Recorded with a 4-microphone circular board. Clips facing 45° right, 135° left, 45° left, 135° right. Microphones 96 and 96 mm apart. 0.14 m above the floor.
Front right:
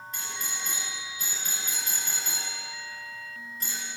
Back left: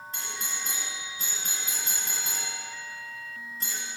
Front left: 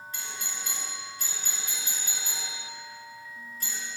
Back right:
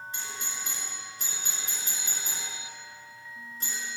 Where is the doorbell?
170° left, 2.5 m.